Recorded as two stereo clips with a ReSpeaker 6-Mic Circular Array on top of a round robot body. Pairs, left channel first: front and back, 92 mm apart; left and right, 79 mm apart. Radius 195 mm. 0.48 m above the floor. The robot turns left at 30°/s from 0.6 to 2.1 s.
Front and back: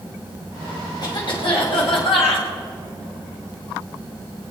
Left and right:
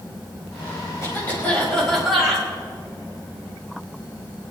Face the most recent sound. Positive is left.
turn(degrees=0)